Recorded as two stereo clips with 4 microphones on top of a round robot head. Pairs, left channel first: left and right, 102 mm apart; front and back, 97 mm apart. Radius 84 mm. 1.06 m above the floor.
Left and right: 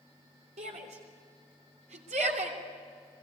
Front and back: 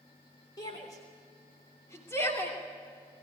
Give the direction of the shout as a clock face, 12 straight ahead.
2 o'clock.